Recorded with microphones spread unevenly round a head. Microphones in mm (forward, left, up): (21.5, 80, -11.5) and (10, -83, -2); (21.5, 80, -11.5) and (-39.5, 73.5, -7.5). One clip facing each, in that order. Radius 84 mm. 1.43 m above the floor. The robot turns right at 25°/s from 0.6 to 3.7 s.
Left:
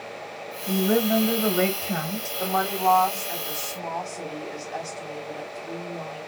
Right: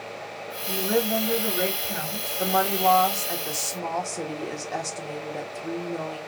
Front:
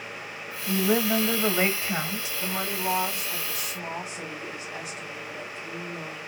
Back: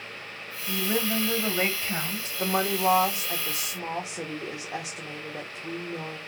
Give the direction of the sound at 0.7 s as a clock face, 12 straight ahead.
10 o'clock.